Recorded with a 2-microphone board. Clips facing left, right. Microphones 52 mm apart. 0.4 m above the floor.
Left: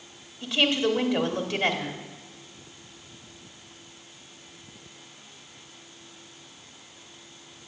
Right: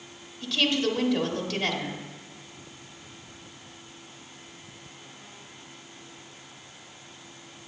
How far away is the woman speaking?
About 1.2 m.